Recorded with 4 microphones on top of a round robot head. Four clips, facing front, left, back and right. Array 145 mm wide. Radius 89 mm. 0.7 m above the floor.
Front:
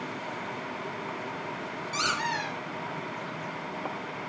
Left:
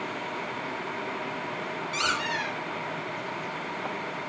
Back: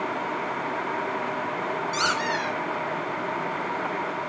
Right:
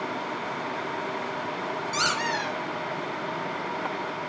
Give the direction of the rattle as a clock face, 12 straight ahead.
I don't hear a rattle.